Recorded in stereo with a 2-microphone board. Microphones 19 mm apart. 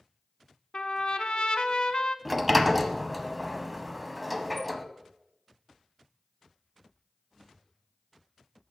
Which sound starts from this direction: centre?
A sliding door, at 2.2 s.